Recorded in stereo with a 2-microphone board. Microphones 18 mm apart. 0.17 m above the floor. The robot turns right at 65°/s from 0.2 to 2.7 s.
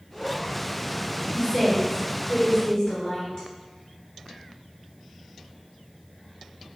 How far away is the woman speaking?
About 1.9 m.